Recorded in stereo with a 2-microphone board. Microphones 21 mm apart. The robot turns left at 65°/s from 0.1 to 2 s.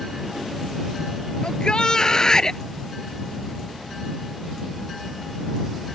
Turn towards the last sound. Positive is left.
turn(degrees=40)